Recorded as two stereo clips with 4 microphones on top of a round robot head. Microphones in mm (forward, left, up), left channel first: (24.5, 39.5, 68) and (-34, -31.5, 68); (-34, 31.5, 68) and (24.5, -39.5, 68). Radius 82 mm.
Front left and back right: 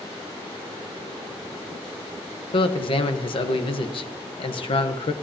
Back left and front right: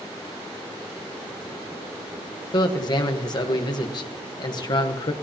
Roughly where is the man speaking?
Left.